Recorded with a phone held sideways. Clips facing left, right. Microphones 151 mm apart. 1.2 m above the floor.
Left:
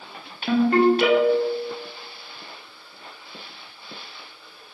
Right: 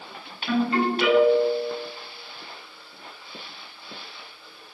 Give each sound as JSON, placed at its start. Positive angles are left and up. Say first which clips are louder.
{"t": 0.5, "sound": "a ringtone", "louder": "left 6 dB", "side_deg": 55, "distance_m": 0.7}